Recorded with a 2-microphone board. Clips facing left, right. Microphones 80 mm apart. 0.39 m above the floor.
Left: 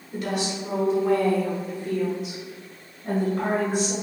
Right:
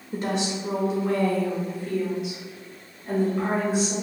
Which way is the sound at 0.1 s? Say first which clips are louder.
Right 1 dB; 30° right (ahead or behind).